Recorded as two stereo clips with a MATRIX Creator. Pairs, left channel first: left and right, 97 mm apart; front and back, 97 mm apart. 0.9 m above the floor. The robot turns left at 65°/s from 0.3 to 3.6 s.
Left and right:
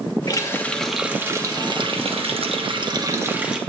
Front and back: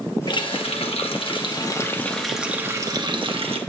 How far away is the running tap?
About 0.9 m.